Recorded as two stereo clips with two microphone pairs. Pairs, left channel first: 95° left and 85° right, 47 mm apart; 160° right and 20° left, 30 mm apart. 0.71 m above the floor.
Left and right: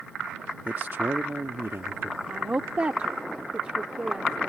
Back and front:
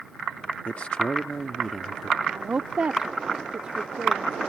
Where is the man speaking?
135° right; by 2.2 s 65° right.